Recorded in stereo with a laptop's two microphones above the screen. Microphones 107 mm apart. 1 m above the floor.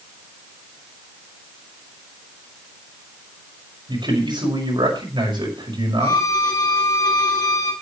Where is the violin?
40° left (ahead or behind), 3 m.